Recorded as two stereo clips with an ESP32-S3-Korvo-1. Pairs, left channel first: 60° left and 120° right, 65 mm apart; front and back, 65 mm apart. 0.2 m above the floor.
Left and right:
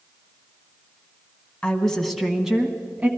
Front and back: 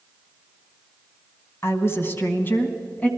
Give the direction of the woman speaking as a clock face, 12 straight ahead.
12 o'clock.